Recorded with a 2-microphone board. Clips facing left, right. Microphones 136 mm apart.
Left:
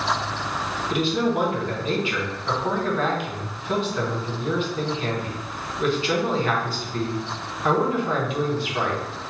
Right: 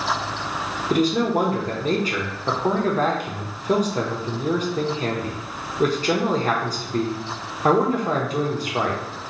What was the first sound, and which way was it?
A man speaking, 40° right (ahead or behind).